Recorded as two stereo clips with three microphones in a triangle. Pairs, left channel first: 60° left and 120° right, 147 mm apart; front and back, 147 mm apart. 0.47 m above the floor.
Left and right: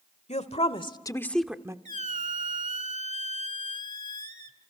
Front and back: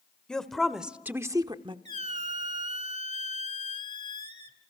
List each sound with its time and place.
0.3 s a woman speaking: 85° left, 1.7 m; by 1.8 s 170° right, 1.0 m
1.9 s a squeak: 145° right, 1.3 m